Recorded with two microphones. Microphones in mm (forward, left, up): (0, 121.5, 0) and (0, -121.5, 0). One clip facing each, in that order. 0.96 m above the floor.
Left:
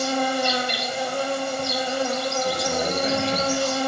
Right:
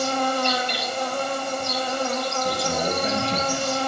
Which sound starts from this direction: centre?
An insect, at 0.0 s.